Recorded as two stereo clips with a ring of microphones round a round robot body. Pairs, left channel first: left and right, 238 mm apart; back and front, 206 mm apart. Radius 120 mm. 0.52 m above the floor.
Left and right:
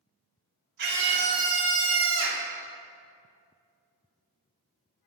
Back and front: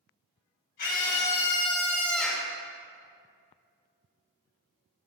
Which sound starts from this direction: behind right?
A scream, at 0.8 s.